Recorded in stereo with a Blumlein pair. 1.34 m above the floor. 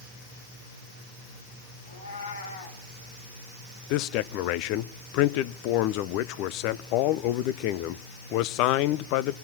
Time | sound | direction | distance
1.9 | a cat meowing | 70° left | 2.5 m
3.9 | a man speaking | 40° left | 0.8 m